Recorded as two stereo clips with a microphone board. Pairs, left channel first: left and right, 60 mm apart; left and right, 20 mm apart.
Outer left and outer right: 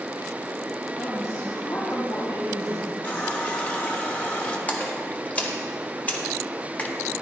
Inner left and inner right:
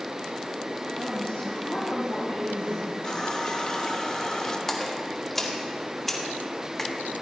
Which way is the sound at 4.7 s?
25° left (ahead or behind).